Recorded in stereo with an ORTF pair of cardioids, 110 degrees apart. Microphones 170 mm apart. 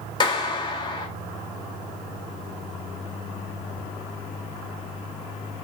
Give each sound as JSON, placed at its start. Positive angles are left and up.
{"t": 0.2, "sound": "a clap", "azimuth_deg": 30, "distance_m": 2.0}